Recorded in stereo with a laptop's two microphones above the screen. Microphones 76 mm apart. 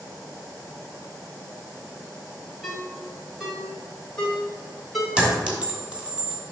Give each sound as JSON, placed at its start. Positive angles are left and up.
{"t": 2.6, "sound": "a ringtone", "side_deg": -5, "distance_m": 2.0}
{"t": 5.2, "sound": "a clink", "side_deg": -15, "distance_m": 1.1}